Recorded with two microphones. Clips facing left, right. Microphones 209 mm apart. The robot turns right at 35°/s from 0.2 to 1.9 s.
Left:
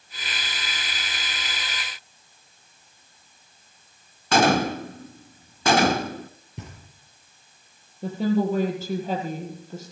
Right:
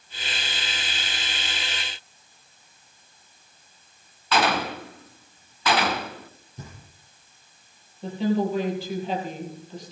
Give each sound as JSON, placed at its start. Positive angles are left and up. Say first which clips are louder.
{"t": 4.3, "sound": "a gunshot", "louder": "left 5 dB", "side_deg": 45, "distance_m": 0.5}
{"t": 6.6, "sound": "knocking", "louder": "left 2 dB", "side_deg": 70, "distance_m": 5.0}
{"t": 8.0, "sound": "a woman speaking", "louder": "left 1 dB", "side_deg": 45, "distance_m": 5.5}